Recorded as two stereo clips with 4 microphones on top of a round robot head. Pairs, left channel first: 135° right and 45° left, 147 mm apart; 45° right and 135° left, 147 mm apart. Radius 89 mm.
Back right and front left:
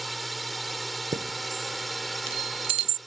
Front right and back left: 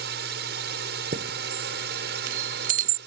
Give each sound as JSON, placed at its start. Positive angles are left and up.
{"t": 0.0, "sound": "a drone", "azimuth_deg": 135}
{"t": 1.1, "sound": "a chime", "azimuth_deg": 100}